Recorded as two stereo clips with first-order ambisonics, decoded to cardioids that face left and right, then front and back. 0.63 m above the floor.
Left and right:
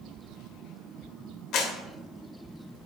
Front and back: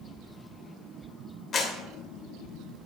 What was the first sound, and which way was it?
A clap, 55° left.